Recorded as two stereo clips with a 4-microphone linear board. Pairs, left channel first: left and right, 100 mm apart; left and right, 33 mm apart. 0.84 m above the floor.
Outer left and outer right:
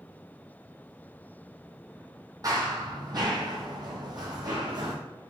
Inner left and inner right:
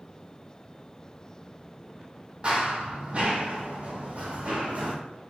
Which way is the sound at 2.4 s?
40° right (ahead or behind).